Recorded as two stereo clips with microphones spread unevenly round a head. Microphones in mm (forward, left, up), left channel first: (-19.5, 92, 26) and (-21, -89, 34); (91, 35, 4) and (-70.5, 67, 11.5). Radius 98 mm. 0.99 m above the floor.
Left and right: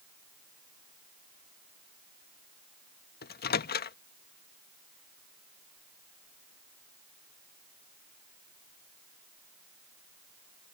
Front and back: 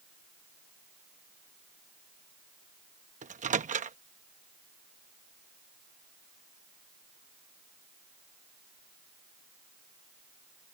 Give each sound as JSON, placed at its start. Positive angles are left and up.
{"t": 3.2, "sound": "a microwave", "azimuth_deg": 125}